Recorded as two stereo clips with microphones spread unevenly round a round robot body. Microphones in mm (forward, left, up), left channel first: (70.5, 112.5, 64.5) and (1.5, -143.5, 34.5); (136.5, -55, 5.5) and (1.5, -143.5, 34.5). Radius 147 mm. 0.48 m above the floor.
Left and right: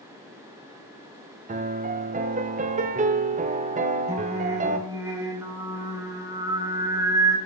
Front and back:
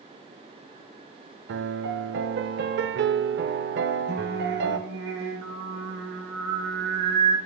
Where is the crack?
No crack in this recording.